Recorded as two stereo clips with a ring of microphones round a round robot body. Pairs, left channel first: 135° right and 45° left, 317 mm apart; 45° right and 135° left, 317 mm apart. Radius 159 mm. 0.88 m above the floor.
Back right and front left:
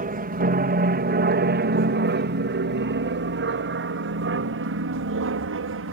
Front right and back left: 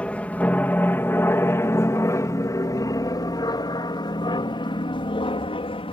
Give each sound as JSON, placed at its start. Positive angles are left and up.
{"t": 0.0, "sound": "an aircraft", "azimuth_deg": 35}